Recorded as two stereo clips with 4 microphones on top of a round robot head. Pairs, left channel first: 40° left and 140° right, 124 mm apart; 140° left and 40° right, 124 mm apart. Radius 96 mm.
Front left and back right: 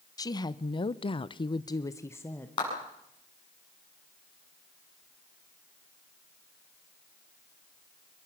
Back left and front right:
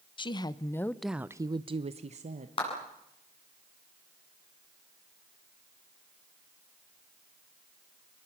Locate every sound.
0.2 s a woman speaking: 95° left, 1.1 m; by 2.5 s 35° right, 1.3 m
2.6 s a clap: 95° left, 8.5 m